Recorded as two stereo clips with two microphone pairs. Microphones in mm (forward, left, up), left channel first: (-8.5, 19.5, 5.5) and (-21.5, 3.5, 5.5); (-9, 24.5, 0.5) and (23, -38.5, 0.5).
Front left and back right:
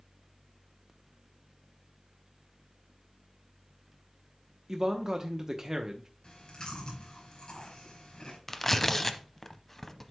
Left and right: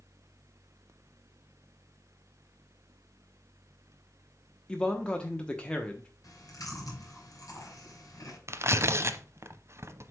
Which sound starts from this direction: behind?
A man speaking, at 4.7 s.